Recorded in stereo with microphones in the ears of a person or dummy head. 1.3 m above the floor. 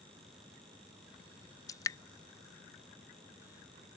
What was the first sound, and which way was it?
Dripping, 15° left (ahead or behind).